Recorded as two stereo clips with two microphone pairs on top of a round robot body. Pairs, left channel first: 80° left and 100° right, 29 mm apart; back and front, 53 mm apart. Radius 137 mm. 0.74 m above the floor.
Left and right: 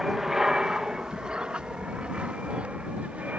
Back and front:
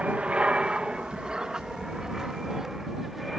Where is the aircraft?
45° right; by 3.4 s 90° right.